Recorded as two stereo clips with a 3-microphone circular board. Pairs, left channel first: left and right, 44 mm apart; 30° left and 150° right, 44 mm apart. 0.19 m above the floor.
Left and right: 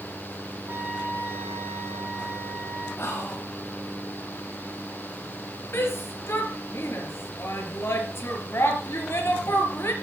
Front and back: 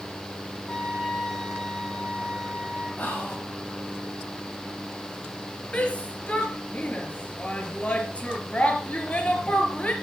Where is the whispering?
80° left, 7.5 m.